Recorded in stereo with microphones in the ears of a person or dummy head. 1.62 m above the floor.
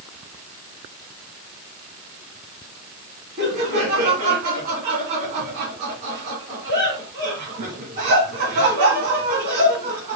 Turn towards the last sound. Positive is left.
turn(degrees=-35)  # may be behind; listen again after turning